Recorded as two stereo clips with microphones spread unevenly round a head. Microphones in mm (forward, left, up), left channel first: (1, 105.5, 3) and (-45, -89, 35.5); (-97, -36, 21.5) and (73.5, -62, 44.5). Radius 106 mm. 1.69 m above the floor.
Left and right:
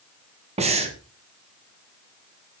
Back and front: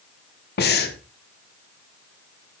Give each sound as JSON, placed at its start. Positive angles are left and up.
{"t": 0.6, "sound": "breathing", "azimuth_deg": -160, "distance_m": 1.6}